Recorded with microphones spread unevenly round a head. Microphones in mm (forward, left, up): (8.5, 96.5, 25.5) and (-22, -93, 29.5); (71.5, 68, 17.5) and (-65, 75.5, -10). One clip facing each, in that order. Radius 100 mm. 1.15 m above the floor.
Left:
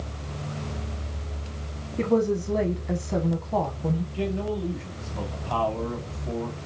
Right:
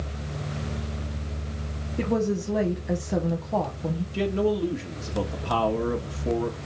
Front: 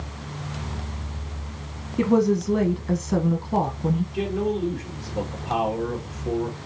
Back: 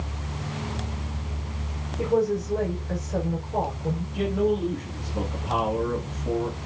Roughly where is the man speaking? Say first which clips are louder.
Right 4 dB, back 1 dB; right.